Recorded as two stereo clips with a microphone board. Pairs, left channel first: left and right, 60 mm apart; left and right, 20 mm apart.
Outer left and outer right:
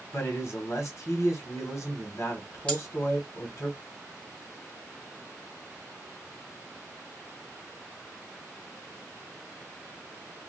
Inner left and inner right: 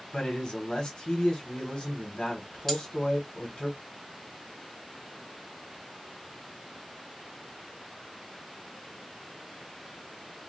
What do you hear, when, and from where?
0.1 s a man speaking: 55° left (ahead or behind), 1.3 m
2.7 s cutlery clinking: 20° left (ahead or behind), 1.3 m